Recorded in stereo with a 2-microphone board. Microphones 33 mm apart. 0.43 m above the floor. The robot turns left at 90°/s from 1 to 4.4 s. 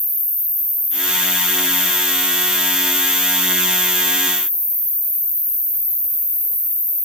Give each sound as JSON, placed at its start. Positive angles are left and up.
{"t": 0.0, "sound": "an insect", "azimuth_deg": 85, "distance_m": 2.5}